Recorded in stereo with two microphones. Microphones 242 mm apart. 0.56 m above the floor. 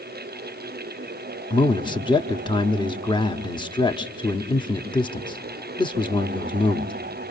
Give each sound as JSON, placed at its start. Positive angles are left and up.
{"t": 1.5, "sound": "a man speaking", "side_deg": 20, "distance_m": 0.8}